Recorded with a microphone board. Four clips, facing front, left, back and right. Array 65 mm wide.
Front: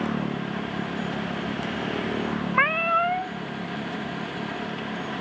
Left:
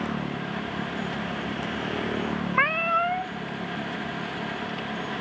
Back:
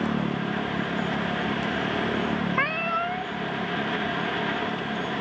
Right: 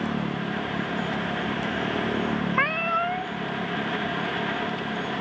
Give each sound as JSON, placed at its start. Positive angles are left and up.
{"t": 2.5, "sound": "a cat meowing", "azimuth_deg": 15, "distance_m": 0.6}